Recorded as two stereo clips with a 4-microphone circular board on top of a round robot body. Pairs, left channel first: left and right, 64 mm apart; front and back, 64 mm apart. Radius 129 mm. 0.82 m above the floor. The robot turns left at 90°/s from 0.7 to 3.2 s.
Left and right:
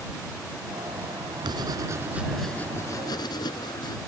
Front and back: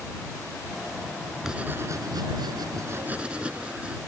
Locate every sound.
1.4 s writing: 95° right; by 4.0 s 105° left